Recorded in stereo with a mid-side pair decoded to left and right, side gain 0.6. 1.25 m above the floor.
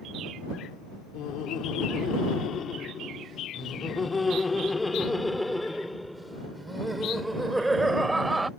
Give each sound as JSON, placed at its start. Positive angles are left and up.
{"t": 1.1, "sound": "laughter", "azimuth_deg": 60}